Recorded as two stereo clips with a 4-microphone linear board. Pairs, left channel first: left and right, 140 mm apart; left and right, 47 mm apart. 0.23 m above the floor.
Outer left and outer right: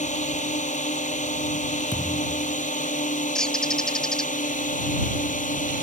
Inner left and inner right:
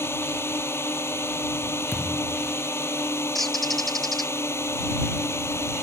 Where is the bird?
5° left (ahead or behind).